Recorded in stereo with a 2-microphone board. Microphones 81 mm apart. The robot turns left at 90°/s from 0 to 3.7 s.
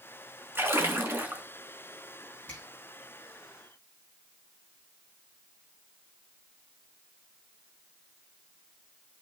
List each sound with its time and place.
0.6 s a splash: 25° right (ahead or behind), 1.5 m; by 1.4 s 15° right (ahead or behind), 1.5 m
2.5 s a finger snap: 15° left (ahead or behind), 5 m; by 2.6 s 25° left (ahead or behind), 5 m